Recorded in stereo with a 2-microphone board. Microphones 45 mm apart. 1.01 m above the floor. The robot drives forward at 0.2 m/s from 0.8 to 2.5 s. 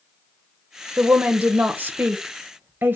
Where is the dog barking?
I don't hear a dog barking.